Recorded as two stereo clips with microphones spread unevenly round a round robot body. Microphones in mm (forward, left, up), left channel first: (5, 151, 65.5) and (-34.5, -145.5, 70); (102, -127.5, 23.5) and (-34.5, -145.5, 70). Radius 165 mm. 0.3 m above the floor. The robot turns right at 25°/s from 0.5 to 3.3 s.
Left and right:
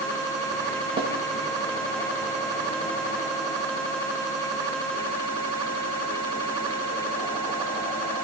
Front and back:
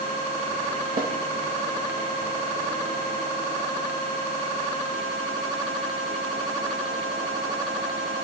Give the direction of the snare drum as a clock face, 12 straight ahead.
6 o'clock.